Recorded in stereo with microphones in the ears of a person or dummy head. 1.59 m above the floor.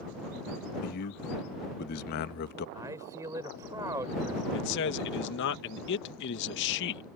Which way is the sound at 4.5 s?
65° left (ahead or behind).